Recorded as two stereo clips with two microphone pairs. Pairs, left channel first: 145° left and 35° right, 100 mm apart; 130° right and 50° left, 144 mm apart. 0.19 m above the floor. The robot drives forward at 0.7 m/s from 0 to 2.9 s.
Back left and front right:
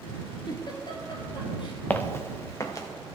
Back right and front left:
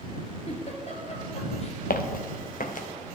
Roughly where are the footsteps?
Behind right.